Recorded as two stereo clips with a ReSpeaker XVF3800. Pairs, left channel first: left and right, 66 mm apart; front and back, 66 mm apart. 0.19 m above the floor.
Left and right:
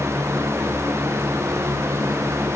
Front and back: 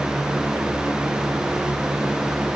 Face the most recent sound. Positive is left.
No sound to turn to.